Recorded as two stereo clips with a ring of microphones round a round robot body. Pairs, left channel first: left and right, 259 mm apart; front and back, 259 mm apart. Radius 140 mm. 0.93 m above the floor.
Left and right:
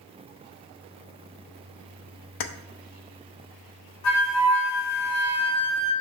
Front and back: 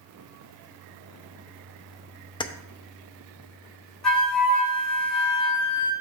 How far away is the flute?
About 3 m.